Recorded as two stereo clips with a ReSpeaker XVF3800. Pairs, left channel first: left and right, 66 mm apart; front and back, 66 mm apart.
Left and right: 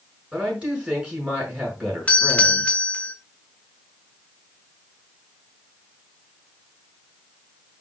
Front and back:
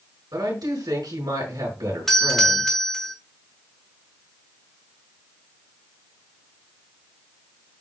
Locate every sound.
0.3 s a woman speaking: 165° right, 5 m
2.1 s a doorbell: 80° left, 1.2 m